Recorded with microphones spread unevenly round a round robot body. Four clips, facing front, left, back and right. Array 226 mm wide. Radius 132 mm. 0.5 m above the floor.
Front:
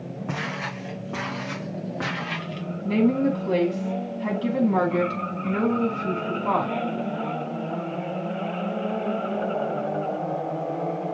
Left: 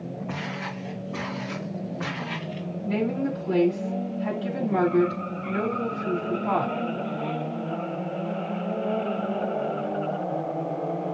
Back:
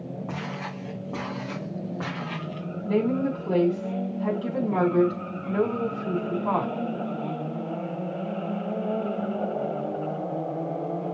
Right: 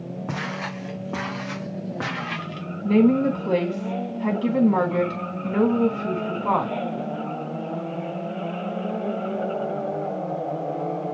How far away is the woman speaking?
About 5 m.